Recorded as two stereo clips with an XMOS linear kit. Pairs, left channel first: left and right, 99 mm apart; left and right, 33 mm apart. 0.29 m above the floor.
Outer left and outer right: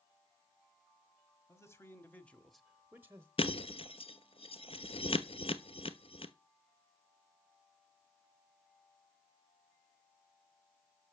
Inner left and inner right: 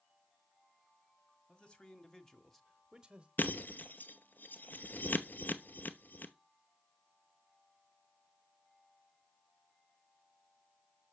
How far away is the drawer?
No drawer in this recording.